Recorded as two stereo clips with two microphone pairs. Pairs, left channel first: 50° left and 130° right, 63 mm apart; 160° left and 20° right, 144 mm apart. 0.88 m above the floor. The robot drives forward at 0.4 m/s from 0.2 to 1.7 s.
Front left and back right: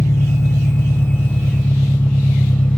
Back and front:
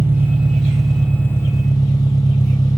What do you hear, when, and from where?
0.0 s an engine running: 50° left, 0.9 m; by 2.8 s 110° left, 0.8 m